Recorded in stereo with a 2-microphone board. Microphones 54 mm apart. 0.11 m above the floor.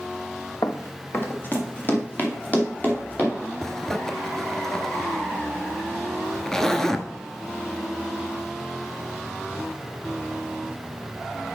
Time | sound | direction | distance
0.6 | running footsteps | 55° left (ahead or behind) | 0.8 m
3.6 | a zipper | 10° left (ahead or behind) | 0.6 m